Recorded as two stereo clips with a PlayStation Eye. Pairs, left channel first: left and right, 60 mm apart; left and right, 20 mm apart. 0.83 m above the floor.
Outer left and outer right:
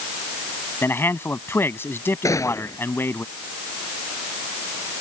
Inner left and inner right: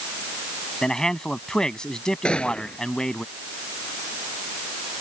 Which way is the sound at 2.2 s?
65° left (ahead or behind).